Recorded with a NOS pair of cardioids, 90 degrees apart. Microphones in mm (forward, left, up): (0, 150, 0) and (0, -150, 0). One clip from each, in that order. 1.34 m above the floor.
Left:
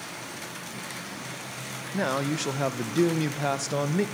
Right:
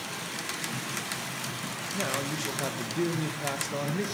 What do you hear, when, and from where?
1.9 s a man speaking: 35° left, 0.9 m